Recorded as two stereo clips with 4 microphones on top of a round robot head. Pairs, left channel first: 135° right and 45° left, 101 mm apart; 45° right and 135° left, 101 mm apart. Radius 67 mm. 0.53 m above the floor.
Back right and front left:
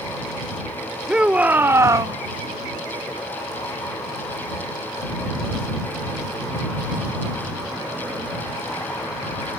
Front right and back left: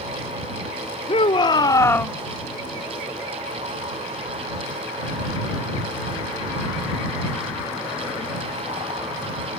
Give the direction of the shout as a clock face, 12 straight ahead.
1 o'clock.